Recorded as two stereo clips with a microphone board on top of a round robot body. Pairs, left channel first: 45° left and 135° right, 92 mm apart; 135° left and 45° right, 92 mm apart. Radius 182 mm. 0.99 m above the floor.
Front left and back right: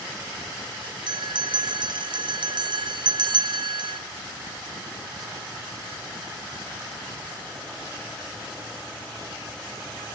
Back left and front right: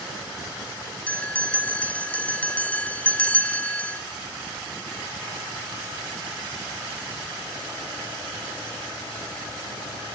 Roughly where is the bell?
Behind right.